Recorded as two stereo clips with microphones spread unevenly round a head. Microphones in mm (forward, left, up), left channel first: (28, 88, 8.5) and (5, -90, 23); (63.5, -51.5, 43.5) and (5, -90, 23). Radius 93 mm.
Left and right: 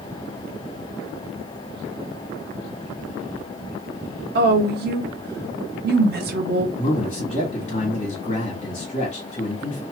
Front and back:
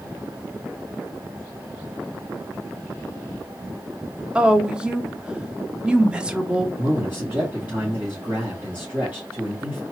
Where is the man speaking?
145° left, 1.8 m.